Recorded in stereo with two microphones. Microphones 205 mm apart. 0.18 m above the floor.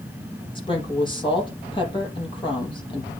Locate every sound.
0.6 s a woman speaking: 25° left (ahead or behind), 5 m